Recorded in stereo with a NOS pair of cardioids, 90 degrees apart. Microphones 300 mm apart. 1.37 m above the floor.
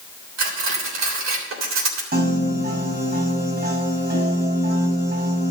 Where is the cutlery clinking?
60° right, 3.5 m.